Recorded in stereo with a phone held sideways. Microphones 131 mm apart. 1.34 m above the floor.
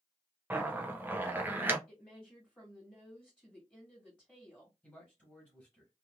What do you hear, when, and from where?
0.5 s a zipper: 15° right (ahead or behind), 0.6 m
1.9 s a woman speaking: 10° left (ahead or behind), 1.6 m
4.8 s a man speaking: 5° left (ahead or behind), 1.7 m